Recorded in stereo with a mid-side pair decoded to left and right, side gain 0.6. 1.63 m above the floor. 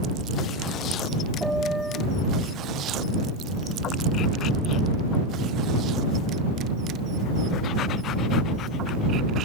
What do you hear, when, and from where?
1.4 s a piano: 5° right